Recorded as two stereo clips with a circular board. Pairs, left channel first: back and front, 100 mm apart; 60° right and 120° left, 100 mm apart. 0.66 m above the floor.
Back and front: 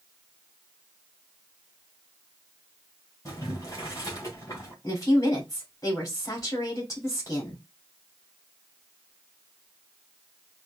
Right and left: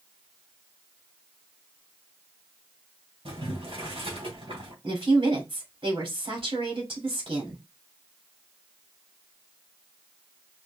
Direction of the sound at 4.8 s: 130° left.